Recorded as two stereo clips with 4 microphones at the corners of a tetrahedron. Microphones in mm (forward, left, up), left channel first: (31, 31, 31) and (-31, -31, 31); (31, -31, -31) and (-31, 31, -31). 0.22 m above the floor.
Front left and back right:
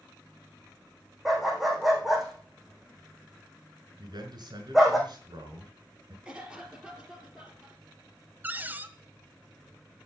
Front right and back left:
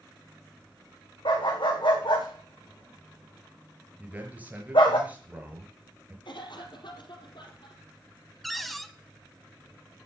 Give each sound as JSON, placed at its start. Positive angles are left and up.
{"t": 1.2, "sound": "a dog barking", "azimuth_deg": -45, "distance_m": 3.5}
{"t": 4.0, "sound": "a man speaking", "azimuth_deg": -155, "distance_m": 4.0}
{"t": 6.2, "sound": "a cough", "azimuth_deg": -55, "distance_m": 4.5}
{"t": 8.4, "sound": "a cupboard door", "azimuth_deg": -130, "distance_m": 1.1}